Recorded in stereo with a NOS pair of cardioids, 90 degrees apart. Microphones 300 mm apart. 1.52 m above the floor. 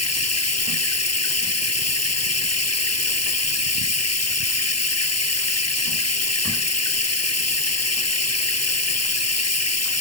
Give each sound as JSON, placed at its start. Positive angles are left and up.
{"t": 0.0, "sound": "running water", "azimuth_deg": 55}